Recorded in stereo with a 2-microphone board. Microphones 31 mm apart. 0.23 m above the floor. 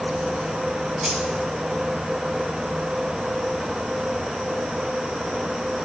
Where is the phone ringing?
No phone ringing in this recording.